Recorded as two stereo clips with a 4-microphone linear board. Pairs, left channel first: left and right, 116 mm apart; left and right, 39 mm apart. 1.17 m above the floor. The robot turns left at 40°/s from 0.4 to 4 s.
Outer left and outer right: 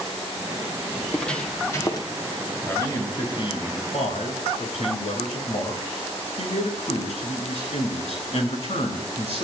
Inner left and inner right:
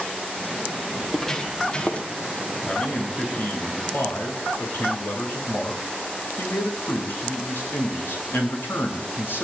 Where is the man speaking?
165° left, 7.5 m; by 9.4 s 110° left, 7.5 m.